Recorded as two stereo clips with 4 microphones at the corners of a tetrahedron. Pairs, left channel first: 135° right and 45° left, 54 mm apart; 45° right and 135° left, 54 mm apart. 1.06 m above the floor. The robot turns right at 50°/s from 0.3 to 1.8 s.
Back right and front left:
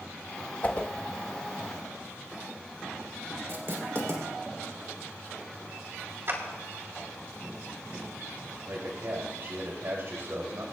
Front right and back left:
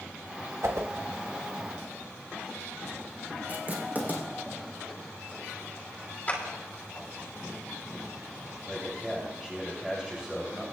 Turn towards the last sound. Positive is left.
turn(degrees=55)